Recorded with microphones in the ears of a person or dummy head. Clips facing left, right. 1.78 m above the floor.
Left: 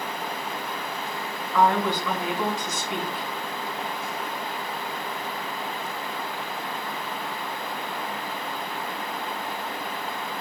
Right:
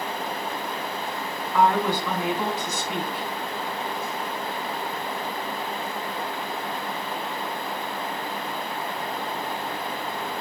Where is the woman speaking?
10° right (ahead or behind), 2.5 m.